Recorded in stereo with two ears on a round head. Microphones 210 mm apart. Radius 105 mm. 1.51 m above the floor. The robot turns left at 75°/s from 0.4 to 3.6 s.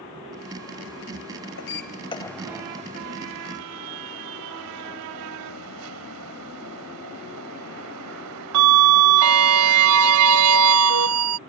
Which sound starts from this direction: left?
A sliding door, at 1.6 s.